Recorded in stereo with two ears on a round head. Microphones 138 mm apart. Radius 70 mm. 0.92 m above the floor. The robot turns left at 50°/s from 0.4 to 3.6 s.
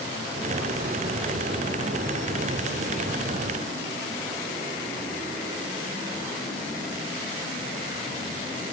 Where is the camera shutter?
I don't hear a camera shutter.